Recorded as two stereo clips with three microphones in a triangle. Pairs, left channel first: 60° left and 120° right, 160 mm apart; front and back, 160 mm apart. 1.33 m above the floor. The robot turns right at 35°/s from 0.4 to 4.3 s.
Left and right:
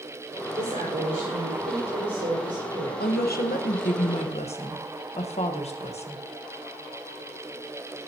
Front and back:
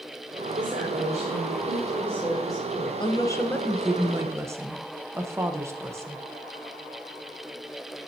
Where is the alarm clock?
I don't hear an alarm clock.